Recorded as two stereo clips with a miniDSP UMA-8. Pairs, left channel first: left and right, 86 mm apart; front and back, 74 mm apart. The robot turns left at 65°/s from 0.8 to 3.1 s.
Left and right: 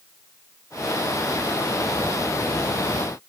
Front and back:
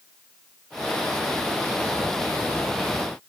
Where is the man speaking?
I don't hear a man speaking.